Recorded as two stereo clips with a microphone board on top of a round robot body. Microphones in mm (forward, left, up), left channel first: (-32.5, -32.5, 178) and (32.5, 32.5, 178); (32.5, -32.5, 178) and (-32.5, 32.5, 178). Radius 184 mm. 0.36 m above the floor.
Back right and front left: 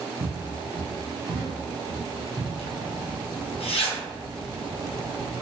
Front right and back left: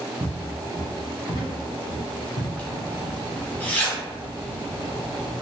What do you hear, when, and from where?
0.2 s footsteps: 65° left, 0.8 m; by 2.5 s 45° right, 1.0 m
2.6 s a zipper: 120° right, 0.8 m